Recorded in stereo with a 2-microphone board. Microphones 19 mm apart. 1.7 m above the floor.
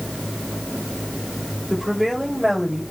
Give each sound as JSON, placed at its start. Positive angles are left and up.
{"t": 1.7, "sound": "a woman speaking", "side_deg": -20, "distance_m": 8.0}